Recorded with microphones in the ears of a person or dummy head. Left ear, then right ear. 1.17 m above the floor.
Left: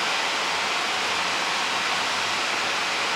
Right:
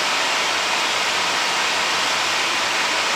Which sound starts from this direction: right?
Running water, at 0.0 s.